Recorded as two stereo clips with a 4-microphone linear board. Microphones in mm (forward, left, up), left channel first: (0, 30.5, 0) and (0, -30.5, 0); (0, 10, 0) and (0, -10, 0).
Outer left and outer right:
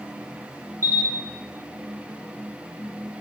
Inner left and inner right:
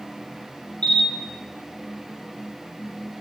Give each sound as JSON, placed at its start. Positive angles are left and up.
{"t": 0.8, "sound": "a camera shutter", "side_deg": 55, "distance_m": 3.5}